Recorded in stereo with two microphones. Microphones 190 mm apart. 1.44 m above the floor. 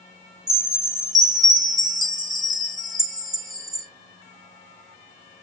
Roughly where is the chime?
Centre.